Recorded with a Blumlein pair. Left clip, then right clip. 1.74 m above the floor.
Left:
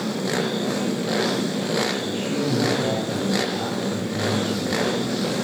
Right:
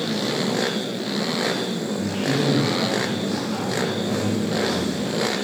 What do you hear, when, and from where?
2.0 s a man speaking: 25° right, 0.5 m; by 5.1 s 65° right, 3 m